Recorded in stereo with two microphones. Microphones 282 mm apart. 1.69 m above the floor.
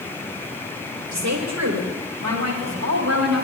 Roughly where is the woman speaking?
Right.